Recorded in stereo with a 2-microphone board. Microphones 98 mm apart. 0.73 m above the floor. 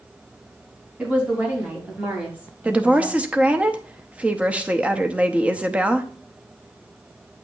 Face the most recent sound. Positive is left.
turn(degrees=-15)  # may be behind; listen again after turning